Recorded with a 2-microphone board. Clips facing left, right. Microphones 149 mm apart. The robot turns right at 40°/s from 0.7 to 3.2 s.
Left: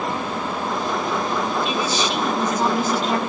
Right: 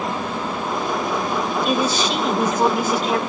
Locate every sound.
1.6 s a man speaking: 60° right, 1.6 m; by 3.2 s straight ahead, 1.6 m